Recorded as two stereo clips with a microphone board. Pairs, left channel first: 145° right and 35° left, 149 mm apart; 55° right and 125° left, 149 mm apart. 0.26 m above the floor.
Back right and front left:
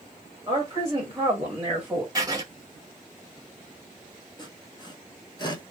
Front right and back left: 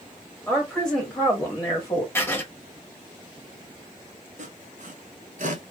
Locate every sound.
0.5 s a woman speaking: 40° left, 1.6 m; by 2.0 s 35° right, 1.6 m
2.1 s writing: straight ahead, 0.9 m
4.4 s sawing: 155° left, 0.9 m